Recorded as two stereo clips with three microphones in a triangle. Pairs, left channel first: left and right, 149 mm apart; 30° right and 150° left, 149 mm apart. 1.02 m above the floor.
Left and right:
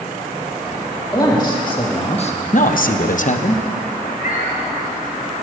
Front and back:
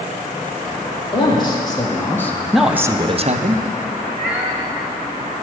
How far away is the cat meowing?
About 3.5 m.